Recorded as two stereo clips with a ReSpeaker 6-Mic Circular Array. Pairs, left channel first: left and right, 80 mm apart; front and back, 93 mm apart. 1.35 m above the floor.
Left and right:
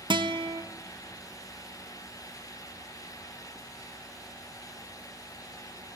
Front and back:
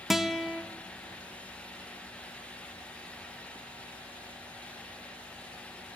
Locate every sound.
0.1 s a guitar: 95° right, 0.8 m